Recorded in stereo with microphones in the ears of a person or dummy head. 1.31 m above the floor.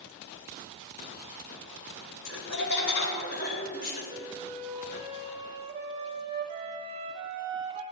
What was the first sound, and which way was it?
Laughter, 65° left (ahead or behind).